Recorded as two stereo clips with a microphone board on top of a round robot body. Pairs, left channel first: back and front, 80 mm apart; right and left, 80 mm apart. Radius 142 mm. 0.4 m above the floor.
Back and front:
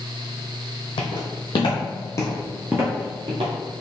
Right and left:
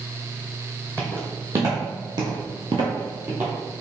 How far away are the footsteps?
About 1.3 m.